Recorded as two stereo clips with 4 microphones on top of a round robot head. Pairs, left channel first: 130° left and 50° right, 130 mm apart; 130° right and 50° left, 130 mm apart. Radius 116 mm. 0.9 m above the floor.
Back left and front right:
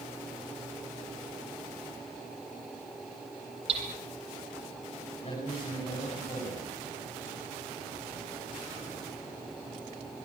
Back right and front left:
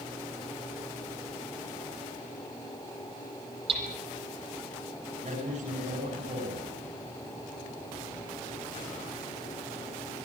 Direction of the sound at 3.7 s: Straight ahead.